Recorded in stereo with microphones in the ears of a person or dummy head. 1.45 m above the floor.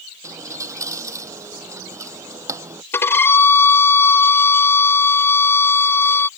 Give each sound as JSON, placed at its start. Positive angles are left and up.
{"t": 0.2, "sound": "a dropped coin", "side_deg": -20}
{"t": 2.9, "sound": "a violin", "side_deg": 15}